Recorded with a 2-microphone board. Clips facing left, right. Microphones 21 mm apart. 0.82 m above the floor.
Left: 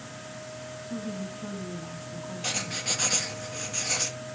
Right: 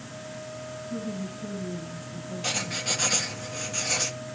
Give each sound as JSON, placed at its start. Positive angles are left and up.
{"t": 0.8, "sound": "a woman speaking", "side_deg": 80, "distance_m": 5.5}
{"t": 2.4, "sound": "writing", "side_deg": -5, "distance_m": 1.4}